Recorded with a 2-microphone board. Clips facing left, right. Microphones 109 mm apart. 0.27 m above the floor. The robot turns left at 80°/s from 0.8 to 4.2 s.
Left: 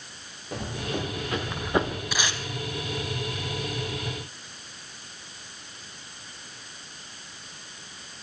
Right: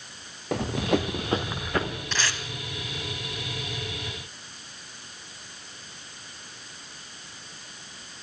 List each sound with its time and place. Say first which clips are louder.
0.5 s running footsteps: right 7 dB; 80° right, 1.8 m; by 2.0 s 45° left (ahead or behind), 1.8 m
2.1 s tape being pulled: right 1 dB; 10° left (ahead or behind), 0.9 m; by 2.4 s 30° left (ahead or behind), 0.9 m